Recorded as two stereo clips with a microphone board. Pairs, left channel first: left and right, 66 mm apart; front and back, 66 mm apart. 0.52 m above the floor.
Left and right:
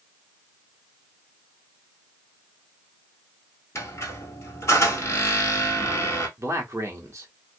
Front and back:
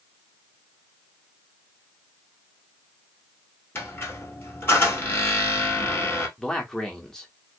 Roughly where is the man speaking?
Right.